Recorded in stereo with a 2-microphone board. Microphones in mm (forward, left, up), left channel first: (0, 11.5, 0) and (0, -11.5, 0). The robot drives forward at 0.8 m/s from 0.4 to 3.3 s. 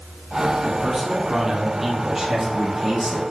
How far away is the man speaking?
About 4 m.